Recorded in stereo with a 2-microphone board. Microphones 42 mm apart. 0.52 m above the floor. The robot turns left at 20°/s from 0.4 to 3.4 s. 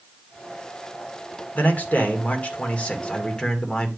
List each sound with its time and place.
1.6 s a man speaking: 65° left, 1.5 m; by 3.9 s 30° left, 1.5 m